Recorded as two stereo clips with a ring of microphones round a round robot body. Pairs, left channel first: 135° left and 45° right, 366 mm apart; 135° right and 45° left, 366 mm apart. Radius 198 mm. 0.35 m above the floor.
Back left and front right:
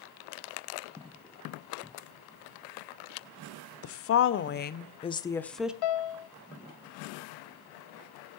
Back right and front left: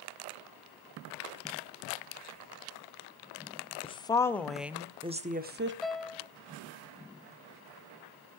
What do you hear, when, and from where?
3.8 s a woman speaking: 155° left, 1.1 m; by 5.7 s 40° left, 0.9 m
5.8 s a piano: 135° left, 1.1 m